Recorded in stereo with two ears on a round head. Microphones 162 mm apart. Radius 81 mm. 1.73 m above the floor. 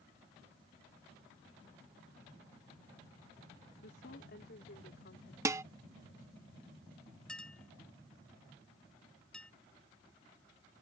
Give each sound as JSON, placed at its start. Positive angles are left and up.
{"t": 3.8, "sound": "a woman speaking", "side_deg": 60}
{"t": 5.5, "sound": "dishes clattering", "side_deg": -15}
{"t": 7.3, "sound": "a clink", "side_deg": 5}